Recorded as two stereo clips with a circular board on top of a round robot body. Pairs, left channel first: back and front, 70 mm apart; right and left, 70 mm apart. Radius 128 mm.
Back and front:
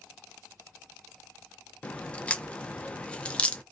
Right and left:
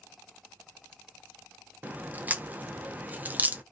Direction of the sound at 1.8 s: 125° left.